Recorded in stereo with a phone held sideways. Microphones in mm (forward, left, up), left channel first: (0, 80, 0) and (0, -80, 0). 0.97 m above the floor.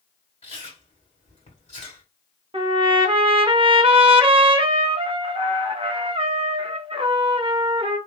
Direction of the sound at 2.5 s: 35° right (ahead or behind).